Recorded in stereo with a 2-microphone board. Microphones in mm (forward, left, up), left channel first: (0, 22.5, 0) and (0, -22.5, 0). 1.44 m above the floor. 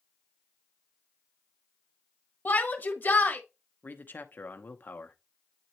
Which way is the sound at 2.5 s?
40° left (ahead or behind).